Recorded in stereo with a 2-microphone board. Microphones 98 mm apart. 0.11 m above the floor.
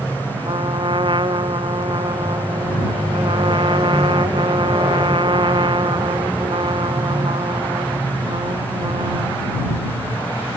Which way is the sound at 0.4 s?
55° right (ahead or behind).